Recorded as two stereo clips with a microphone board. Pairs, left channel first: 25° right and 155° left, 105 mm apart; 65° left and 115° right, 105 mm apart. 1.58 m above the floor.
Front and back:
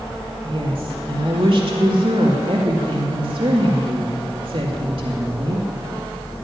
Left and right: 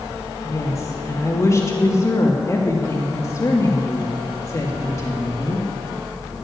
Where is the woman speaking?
125° left, 2.5 m.